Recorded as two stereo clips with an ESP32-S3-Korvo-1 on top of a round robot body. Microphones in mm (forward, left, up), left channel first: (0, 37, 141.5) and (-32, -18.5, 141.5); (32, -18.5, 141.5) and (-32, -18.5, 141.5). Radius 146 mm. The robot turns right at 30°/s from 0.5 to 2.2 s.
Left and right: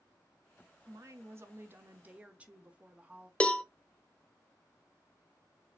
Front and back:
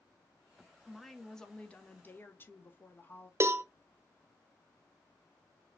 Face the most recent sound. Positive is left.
turn(degrees=135)